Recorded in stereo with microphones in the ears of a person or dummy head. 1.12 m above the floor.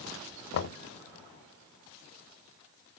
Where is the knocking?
70° left (ahead or behind), 0.8 m.